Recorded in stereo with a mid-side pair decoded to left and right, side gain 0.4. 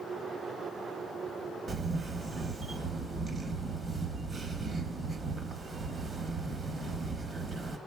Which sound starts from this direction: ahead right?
A camera shutter, at 1.7 s.